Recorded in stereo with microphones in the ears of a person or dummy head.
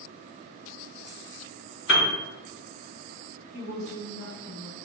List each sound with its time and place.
1.9 s a piano: 60° left (ahead or behind), 0.7 m
3.5 s a woman speaking: 20° left (ahead or behind), 2.0 m